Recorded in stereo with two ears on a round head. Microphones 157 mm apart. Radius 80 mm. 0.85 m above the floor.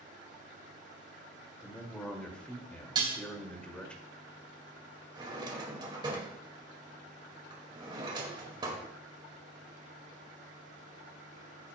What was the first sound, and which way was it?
A man speaking, 5° left (ahead or behind).